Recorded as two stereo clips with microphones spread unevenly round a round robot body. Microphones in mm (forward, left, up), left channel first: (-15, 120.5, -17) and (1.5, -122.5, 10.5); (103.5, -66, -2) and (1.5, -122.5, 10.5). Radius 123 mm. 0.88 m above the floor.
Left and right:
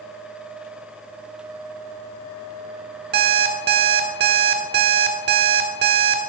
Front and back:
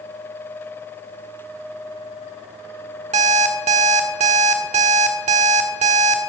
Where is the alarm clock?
135° right, 1.3 m.